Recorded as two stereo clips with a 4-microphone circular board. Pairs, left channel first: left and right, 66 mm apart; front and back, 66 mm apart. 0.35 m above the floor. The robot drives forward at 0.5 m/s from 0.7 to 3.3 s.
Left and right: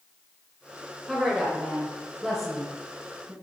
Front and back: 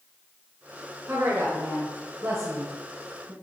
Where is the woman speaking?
175° left, 1.7 m; by 3.3 s straight behind, 2.5 m.